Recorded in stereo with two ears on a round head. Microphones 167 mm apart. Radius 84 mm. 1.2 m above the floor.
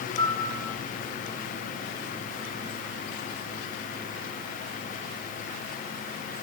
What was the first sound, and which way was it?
A piano, 25° left (ahead or behind).